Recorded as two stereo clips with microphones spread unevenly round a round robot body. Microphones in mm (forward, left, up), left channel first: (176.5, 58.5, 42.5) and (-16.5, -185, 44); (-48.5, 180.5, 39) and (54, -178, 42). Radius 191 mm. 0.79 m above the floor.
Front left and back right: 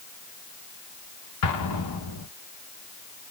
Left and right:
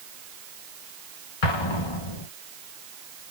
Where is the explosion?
90° left, 0.8 m.